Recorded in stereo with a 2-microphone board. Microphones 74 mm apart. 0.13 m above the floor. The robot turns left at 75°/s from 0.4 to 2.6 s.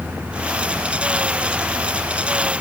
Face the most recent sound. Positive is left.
No sound to turn to.